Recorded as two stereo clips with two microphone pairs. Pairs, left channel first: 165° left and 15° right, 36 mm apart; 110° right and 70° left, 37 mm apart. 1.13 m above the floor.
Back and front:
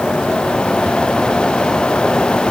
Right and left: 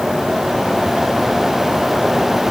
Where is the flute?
No flute in this recording.